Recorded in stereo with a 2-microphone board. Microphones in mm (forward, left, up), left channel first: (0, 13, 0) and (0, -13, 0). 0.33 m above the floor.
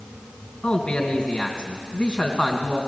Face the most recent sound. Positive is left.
turn(degrees=35)  # may be behind; listen again after turning